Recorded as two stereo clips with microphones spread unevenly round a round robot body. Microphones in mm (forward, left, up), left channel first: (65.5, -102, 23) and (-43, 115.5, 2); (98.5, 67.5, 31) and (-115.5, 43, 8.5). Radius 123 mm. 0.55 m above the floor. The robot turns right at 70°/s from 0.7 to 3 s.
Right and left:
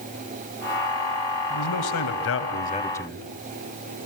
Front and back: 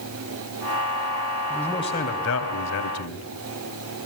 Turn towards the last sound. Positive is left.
turn(degrees=20)